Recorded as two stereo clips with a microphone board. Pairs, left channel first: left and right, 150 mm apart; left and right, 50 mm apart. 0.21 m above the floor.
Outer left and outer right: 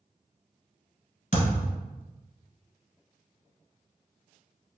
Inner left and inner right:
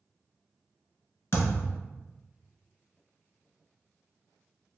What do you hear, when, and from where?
1.3 s a thud: 55° left (ahead or behind), 1.3 m